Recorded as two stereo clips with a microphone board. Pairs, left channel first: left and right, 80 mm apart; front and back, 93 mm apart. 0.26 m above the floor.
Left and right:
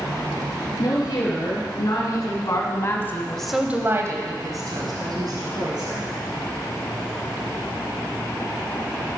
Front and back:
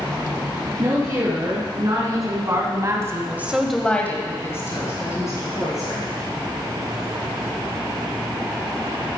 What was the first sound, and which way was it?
A woman speaking, 130° left.